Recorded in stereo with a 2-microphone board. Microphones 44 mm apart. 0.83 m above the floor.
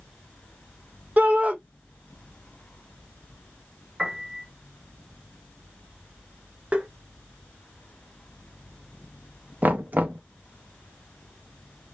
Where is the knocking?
35° right (ahead or behind), 0.5 m.